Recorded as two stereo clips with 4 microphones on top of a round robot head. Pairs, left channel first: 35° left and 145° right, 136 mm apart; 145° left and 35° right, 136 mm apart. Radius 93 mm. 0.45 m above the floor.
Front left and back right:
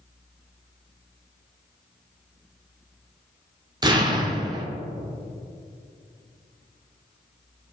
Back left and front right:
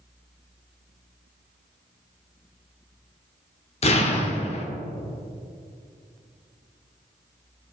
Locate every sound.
3.8 s an explosion: 165° left, 1.3 m